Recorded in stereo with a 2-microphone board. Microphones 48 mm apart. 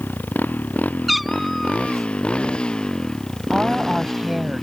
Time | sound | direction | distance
0.0 | a motorcycle | 40° left (ahead or behind) | ?
1.1 | a cat meowing | centre (ahead or behind) | ?
3.5 | a woman speaking | 15° right (ahead or behind) | ?